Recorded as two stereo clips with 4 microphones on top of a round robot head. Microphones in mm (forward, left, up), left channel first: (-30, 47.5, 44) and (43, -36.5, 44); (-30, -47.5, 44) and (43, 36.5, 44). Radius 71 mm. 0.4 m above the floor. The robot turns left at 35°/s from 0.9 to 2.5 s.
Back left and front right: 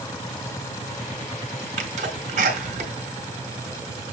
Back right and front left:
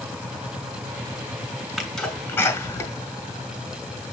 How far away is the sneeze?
About 4 m.